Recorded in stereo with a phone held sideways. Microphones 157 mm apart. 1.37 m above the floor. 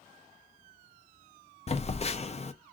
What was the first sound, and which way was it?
A phone buzzing, 40° left (ahead or behind).